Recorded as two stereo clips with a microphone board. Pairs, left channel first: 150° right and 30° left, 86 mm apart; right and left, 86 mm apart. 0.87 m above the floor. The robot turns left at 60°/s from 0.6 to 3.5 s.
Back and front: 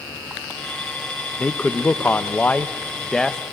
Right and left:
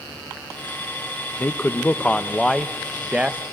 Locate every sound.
1.4 s a man speaking: 110° right, 0.6 m; by 3.4 s 130° left, 0.6 m